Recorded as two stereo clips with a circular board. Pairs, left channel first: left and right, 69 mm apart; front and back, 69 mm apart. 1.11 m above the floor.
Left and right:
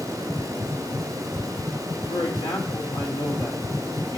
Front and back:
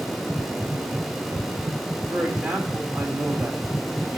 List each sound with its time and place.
2.1 s a man speaking: 100° left, 1.9 m